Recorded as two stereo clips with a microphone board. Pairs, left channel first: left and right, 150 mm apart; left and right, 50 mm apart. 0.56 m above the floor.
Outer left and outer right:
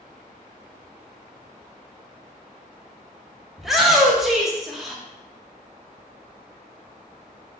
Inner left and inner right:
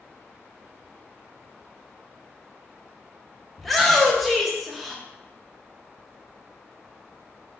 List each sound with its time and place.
3.6 s a shout: centre (ahead or behind), 0.6 m